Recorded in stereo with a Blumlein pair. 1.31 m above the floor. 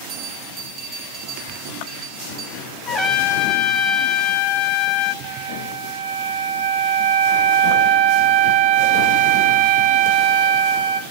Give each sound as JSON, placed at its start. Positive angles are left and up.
{"t": 0.1, "sound": "a bell", "azimuth_deg": -25, "distance_m": 4.0}
{"t": 2.9, "sound": "a trumpet", "azimuth_deg": 15, "distance_m": 2.5}
{"t": 5.2, "sound": "a flute", "azimuth_deg": -50, "distance_m": 1.6}